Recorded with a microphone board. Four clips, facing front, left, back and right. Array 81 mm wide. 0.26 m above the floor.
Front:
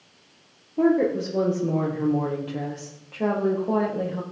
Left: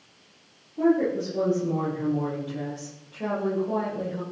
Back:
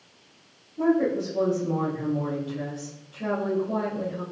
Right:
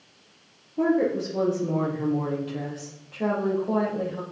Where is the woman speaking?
20° right, 6 m.